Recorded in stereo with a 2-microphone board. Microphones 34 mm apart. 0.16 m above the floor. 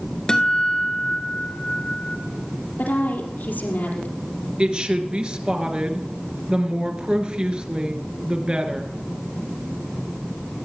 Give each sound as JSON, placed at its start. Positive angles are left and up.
{"t": 0.3, "sound": "a guitar", "side_deg": 25, "distance_m": 1.5}
{"t": 2.8, "sound": "a woman speaking", "side_deg": 65, "distance_m": 3.5}
{"t": 4.6, "sound": "a woman speaking", "side_deg": -30, "distance_m": 2.5}